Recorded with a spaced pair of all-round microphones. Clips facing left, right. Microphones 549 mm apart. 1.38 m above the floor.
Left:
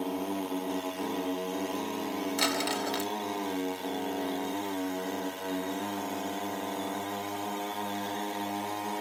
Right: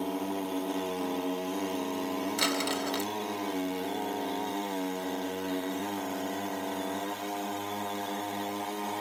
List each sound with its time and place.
2.4 s crumpling: 15° left (ahead or behind), 0.9 m